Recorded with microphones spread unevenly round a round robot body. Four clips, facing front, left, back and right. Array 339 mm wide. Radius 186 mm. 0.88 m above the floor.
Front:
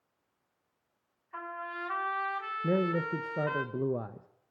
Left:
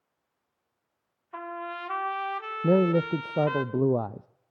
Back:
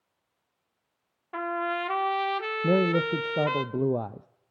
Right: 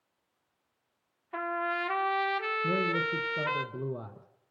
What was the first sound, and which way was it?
A trumpet, 155° right.